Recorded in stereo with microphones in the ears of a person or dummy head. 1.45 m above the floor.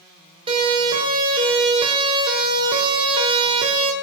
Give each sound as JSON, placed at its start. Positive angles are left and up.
{"t": 0.5, "sound": "a siren", "side_deg": -25, "distance_m": 6.5}